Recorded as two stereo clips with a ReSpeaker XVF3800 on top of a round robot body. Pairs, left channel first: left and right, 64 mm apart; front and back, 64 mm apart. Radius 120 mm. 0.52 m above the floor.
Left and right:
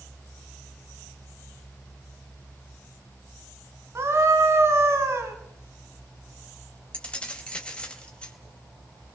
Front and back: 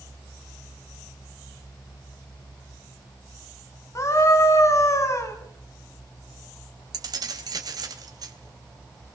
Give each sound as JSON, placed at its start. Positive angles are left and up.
{"t": 4.0, "sound": "a scream", "azimuth_deg": -40, "distance_m": 4.5}
{"t": 6.9, "sound": "keys jangling", "azimuth_deg": 165, "distance_m": 3.0}